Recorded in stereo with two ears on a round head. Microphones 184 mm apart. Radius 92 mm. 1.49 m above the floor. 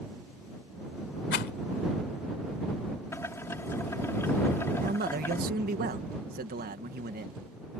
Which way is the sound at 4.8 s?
45° right (ahead or behind).